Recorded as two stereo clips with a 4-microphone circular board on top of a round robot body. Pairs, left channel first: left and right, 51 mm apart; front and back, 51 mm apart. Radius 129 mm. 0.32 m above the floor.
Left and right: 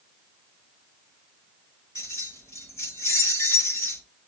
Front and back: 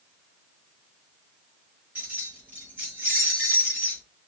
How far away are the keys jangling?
About 3.5 m.